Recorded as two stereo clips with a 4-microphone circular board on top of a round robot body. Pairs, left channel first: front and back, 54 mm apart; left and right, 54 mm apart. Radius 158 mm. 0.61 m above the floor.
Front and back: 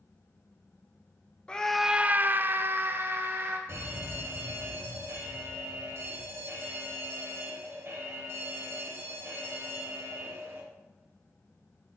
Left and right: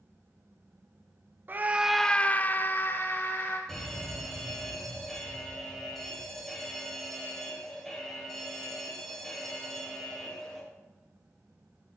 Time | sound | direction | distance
1.5 | a scream | 65° right | 0.6 m
3.7 | an alarm | 170° left | 2.5 m